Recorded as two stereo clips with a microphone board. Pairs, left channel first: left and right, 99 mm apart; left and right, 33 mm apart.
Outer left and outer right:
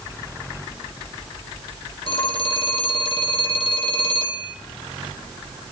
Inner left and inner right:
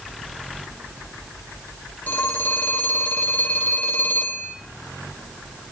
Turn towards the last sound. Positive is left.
turn(degrees=65)  # may be behind; listen again after turning